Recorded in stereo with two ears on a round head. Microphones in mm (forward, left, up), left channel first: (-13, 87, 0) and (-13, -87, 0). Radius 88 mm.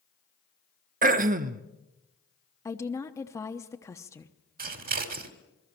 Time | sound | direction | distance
1.0 | throat clearing | 40° right (ahead or behind) | 0.9 m
2.6 | a woman speaking | 15° left (ahead or behind) | 1.1 m
4.6 | scissors | 50° right (ahead or behind) | 2.5 m